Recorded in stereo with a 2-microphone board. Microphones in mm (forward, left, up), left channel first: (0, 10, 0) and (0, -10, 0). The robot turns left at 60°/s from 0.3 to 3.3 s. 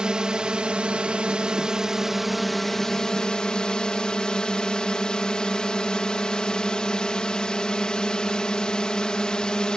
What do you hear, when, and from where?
0.0 s a drone: 55° right; by 9.8 s 125° left